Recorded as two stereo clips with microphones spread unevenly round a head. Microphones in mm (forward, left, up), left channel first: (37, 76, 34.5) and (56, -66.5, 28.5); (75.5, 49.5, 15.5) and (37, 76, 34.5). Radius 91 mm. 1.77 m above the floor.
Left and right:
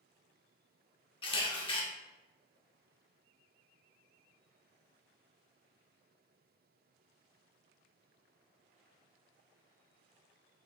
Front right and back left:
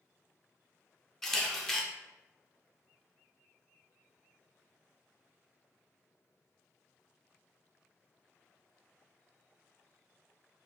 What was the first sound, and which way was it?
A camera shutter, 65° left.